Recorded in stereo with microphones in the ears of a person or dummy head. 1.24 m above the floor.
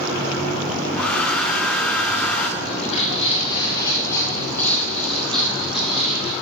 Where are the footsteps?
40° left (ahead or behind), 1.9 m; by 6.3 s 5° right (ahead or behind), 3 m.